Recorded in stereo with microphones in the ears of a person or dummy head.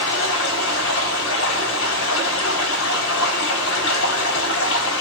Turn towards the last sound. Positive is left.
turn(degrees=70)  # may be behind; listen again after turning